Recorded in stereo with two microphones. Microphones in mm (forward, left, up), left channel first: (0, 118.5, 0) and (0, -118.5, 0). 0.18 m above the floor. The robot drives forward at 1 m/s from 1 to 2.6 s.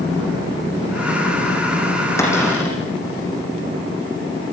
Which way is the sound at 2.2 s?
10° left (ahead or behind).